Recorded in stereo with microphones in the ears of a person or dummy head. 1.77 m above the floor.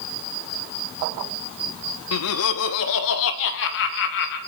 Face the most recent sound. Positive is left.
turn(degrees=65)  # may be behind; listen again after turning